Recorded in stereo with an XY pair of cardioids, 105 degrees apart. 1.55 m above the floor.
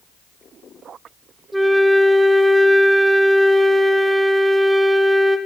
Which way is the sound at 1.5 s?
5° right.